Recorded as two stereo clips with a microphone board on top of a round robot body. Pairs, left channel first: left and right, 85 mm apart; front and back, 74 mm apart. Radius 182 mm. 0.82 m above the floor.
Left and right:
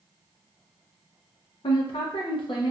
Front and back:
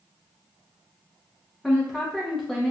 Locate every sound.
1.6 s a woman speaking: 90° left, 0.7 m